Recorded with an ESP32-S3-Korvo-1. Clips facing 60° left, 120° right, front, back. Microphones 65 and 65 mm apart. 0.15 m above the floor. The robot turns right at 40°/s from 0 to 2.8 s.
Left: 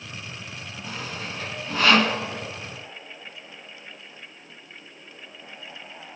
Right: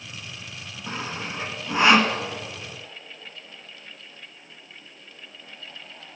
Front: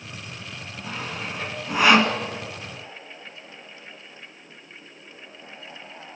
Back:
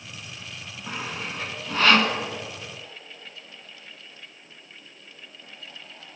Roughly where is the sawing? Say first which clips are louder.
Right 3 dB, even; right.